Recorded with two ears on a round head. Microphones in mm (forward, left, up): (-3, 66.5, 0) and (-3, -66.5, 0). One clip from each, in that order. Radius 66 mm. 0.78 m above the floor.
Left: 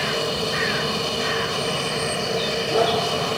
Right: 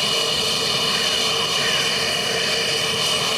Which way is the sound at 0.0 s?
55° right (ahead or behind).